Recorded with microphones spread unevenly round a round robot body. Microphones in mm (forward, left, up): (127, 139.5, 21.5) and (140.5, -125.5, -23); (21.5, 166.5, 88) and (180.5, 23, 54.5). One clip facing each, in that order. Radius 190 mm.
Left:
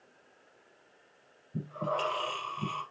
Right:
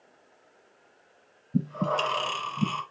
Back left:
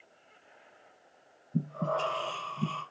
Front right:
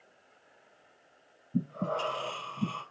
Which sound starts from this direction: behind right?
Breathing, at 1.5 s.